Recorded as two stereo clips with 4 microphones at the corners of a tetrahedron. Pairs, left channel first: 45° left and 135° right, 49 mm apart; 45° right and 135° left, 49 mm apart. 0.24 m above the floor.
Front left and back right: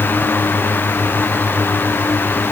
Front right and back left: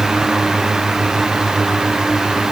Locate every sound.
Only background noise.